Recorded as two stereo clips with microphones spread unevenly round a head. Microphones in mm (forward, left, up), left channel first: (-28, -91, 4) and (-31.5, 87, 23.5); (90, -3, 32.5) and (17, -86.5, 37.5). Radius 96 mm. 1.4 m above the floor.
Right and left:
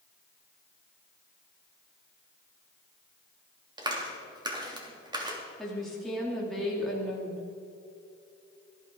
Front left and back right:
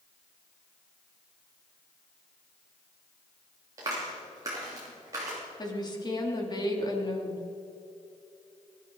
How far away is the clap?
About 3 m.